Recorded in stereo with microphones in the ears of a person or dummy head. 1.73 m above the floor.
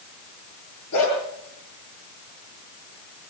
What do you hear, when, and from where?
0.9 s a dog barking: 75° left (ahead or behind), 8 m